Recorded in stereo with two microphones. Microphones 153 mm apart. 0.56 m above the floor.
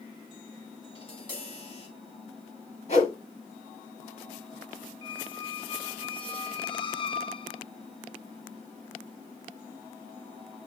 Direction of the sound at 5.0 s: 35° left (ahead or behind).